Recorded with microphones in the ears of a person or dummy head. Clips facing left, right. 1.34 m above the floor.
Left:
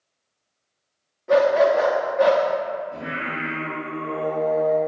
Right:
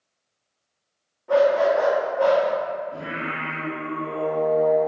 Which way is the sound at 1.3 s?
20° left (ahead or behind).